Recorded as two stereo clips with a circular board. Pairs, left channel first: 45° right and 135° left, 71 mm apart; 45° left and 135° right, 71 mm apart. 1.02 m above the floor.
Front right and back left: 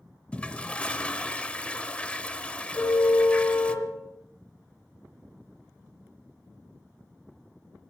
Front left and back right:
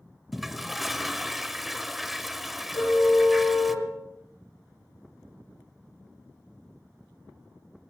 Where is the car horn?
5° left, 8 m.